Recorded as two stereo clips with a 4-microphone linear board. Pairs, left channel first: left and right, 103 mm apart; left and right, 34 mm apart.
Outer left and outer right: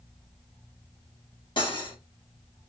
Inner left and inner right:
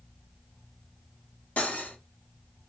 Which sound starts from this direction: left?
Cutlery clinking, at 1.6 s.